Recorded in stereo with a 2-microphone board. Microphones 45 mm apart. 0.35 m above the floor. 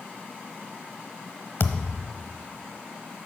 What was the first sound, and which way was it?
A thud, 65° left (ahead or behind).